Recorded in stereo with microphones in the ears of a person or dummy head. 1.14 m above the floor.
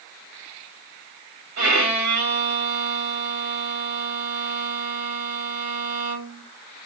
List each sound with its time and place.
1.6 s a violin: 80° right, 2.5 m